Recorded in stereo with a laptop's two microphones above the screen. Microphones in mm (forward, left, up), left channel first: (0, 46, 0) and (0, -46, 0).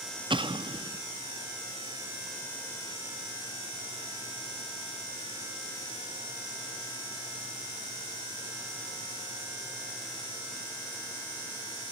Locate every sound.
0.3 s an explosion: 65° right (ahead or behind), 1.3 m